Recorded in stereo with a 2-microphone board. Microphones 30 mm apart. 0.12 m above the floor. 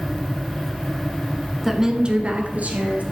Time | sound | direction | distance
1.6 | a woman speaking | centre (ahead or behind) | 1.1 m